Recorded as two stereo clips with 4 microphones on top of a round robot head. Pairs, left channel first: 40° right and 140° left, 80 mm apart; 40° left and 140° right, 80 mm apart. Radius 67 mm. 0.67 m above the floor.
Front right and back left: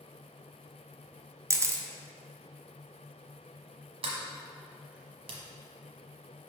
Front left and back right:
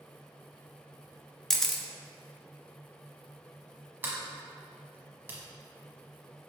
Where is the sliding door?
155° left, 1.1 m.